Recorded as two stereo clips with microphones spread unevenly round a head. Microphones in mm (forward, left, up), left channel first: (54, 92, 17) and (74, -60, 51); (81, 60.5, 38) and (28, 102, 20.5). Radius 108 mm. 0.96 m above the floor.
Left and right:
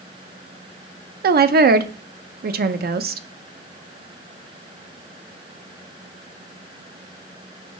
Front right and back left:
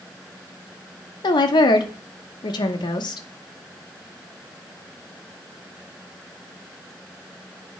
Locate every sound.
1.2 s a woman speaking: 60° right, 0.6 m